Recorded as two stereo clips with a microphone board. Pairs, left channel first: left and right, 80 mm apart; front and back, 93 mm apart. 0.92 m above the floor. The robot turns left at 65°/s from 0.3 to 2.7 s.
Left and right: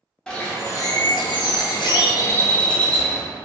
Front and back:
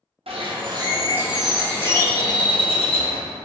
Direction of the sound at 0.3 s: 170° left.